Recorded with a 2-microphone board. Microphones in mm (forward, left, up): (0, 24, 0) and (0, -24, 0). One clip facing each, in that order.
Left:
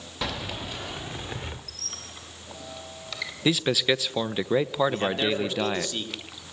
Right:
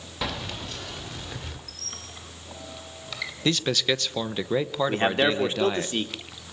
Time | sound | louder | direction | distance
0.2 | keys jangling | even | 5° right (ahead or behind) | 1.2 m
1.7 | a squeak | even | 5° right (ahead or behind) | 1.9 m
3.5 | a man speaking | left 1 dB | 5° left (ahead or behind) | 0.7 m
4.9 | a man speaking | right 3 dB | 30° right (ahead or behind) | 2.5 m